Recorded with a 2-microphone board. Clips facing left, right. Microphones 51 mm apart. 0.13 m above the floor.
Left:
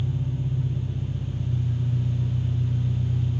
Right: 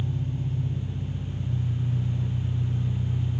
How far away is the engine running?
About 3.5 m.